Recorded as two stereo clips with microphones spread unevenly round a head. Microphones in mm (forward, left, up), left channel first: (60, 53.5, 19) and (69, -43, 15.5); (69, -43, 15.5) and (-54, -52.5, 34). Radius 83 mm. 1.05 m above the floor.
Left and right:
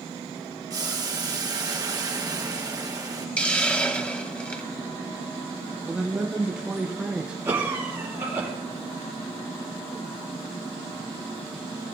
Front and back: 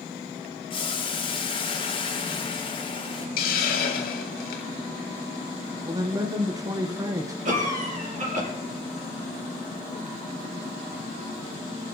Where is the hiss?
20° left, 1.2 m.